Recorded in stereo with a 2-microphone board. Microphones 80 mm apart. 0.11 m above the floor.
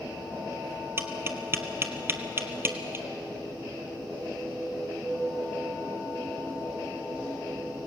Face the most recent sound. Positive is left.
turn(degrees=-30)  # may be behind; listen again after turning